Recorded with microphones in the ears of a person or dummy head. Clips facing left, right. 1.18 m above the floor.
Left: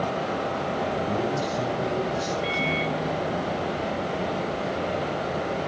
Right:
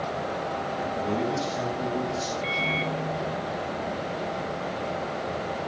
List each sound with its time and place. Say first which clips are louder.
0.9 s a man speaking: left 1 dB; 75° right (ahead or behind), 7 m
2.4 s a microwave: left 3 dB; 10° left (ahead or behind), 1.2 m